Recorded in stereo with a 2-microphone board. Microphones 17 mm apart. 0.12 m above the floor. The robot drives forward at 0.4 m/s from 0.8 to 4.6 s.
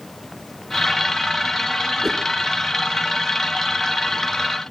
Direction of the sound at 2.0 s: 30° right (ahead or behind).